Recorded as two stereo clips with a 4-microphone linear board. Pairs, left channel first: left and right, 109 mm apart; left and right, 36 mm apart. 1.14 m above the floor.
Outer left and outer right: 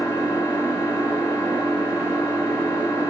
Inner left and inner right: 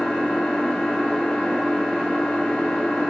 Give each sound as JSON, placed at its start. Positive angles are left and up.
{"t": 0.0, "sound": "an engine running", "side_deg": 25, "distance_m": 0.9}